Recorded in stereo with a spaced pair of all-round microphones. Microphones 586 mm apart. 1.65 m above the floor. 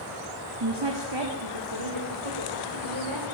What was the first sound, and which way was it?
A woman speaking, 45° right (ahead or behind).